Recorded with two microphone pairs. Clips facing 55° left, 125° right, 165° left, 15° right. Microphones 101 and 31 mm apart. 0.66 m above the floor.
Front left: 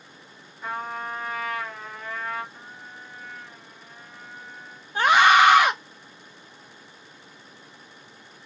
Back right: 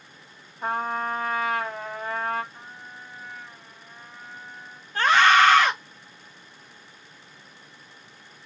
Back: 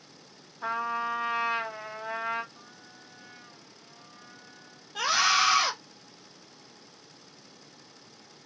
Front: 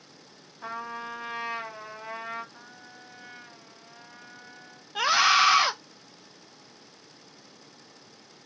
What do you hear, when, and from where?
0.6 s a trumpet: 120° right, 2.5 m
2.5 s a trumpet: 40° right, 1.1 m
5.0 s a scream: 10° left, 0.5 m